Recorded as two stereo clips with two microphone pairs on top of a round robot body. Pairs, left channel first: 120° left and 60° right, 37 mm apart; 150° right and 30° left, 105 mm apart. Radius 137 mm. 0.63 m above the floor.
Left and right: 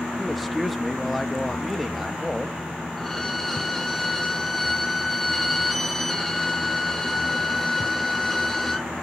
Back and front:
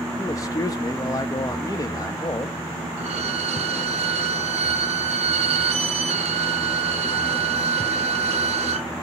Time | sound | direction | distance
0.2 | a man speaking | 150° right | 1.1 m
3.0 | a violin | 35° left | 0.5 m